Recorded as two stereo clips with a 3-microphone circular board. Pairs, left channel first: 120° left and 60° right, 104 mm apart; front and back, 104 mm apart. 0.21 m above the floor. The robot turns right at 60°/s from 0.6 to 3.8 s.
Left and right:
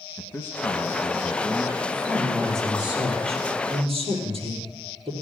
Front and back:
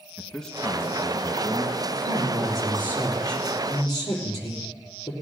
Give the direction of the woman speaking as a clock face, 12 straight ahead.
6 o'clock.